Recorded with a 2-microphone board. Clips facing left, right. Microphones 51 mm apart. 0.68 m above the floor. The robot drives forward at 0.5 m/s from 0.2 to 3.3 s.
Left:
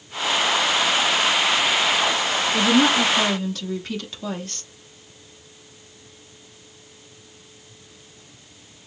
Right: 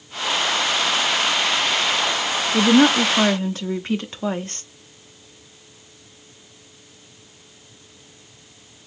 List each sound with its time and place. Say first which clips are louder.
2.5 s a woman speaking: right 4 dB; 35° right (ahead or behind), 0.7 m; by 4.6 s 30° right (ahead or behind), 0.8 m